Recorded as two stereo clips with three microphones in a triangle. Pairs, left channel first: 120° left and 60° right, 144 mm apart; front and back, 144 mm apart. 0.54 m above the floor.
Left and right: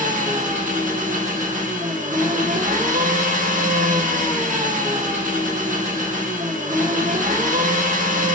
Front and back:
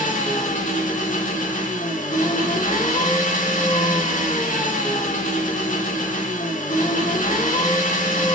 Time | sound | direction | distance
0.0 | an engine running | 30° right | 0.9 m